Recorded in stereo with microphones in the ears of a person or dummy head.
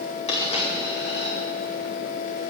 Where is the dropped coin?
40° left (ahead or behind), 5 m.